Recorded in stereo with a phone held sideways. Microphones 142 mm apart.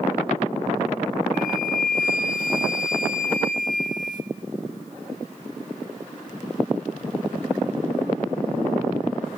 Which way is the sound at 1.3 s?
65° left (ahead or behind).